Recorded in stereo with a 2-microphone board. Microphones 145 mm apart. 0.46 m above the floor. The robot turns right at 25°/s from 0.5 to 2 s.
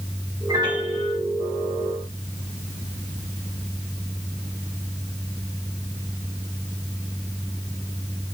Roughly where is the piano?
Right.